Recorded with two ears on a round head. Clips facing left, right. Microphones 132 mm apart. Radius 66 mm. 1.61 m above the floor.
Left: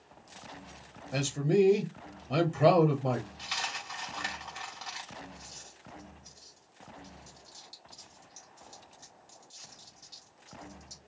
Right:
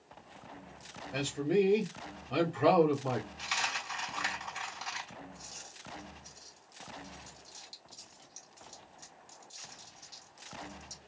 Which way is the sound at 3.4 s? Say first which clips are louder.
Right 1 dB; 15° right (ahead or behind).